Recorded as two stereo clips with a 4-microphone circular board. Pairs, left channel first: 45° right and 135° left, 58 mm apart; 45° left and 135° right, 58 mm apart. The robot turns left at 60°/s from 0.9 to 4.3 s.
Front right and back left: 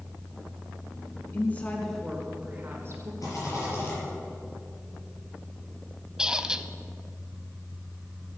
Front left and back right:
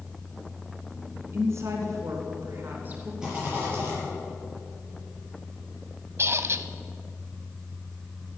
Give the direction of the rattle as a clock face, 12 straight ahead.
2 o'clock.